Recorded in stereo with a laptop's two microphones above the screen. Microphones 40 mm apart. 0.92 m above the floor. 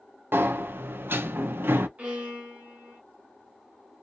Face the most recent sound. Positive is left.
turn(degrees=-40)  # may be behind; listen again after turning